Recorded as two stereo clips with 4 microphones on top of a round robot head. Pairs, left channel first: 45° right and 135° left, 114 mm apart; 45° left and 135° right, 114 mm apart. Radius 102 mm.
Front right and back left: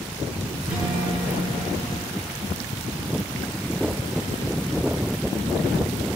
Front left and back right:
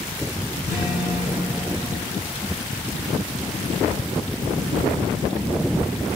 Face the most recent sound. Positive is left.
turn(degrees=60)